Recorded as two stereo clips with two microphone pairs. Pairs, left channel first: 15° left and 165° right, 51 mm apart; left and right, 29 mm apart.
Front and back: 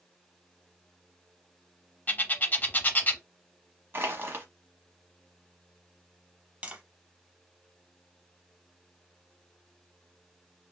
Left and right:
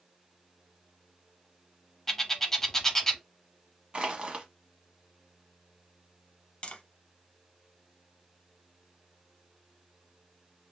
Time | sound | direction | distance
2.1 | a bird | 25° left | 0.5 m
3.9 | crushing | 135° right | 0.9 m
6.6 | tapping | 135° left | 0.6 m